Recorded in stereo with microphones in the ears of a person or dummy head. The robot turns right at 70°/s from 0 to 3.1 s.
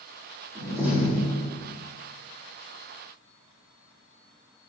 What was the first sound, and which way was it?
A door slam, 30° right.